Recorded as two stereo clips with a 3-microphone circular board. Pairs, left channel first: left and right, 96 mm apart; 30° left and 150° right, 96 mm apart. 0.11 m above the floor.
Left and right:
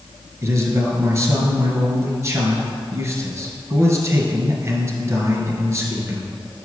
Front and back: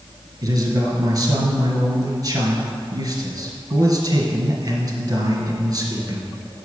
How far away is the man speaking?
About 1.6 m.